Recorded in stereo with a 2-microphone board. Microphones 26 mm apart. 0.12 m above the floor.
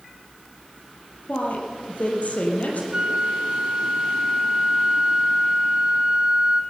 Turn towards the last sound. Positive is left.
turn(degrees=-35)  # may be behind; listen again after turning